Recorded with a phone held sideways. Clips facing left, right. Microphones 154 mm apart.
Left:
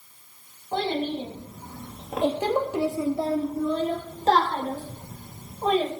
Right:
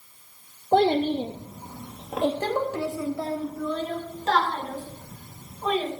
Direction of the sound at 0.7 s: 55° right (ahead or behind).